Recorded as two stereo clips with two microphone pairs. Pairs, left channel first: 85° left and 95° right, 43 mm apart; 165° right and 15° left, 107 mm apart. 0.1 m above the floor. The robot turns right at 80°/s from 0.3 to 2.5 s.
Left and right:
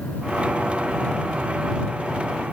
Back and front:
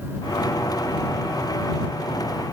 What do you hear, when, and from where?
Only background noise.